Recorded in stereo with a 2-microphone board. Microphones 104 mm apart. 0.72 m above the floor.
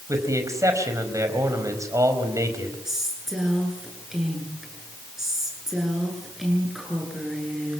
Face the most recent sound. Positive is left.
turn(degrees=-5)  # may be behind; listen again after turning